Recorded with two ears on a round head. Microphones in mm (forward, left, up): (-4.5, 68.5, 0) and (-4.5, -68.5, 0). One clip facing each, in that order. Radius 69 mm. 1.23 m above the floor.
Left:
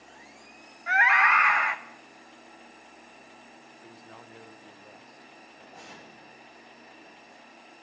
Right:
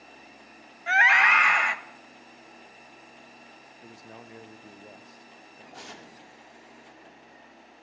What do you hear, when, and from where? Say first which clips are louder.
0.9 s a scream: even; 30° right (ahead or behind), 0.8 m
3.8 s a man speaking: right 3 dB; 25° right (ahead or behind), 0.7 m
5.7 s tearing paper: right 3 dB; 80° right, 2.0 m